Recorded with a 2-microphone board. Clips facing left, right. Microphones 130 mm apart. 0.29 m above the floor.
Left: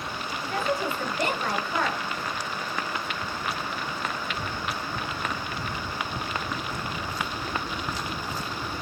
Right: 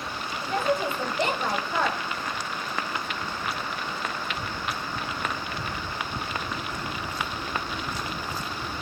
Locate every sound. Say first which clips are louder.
0.4 s a woman speaking: right 2 dB; 25° right (ahead or behind), 1.1 m